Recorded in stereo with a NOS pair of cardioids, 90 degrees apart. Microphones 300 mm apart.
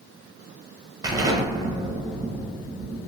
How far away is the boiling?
I don't hear boiling.